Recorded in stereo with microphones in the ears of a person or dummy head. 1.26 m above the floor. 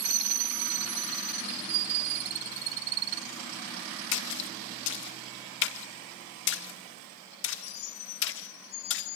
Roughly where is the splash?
Left.